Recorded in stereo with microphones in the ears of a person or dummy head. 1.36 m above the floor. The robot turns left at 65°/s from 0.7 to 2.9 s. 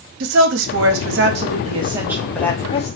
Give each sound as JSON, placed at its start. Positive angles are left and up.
{"t": 0.2, "sound": "a woman speaking", "azimuth_deg": -75, "distance_m": 0.7}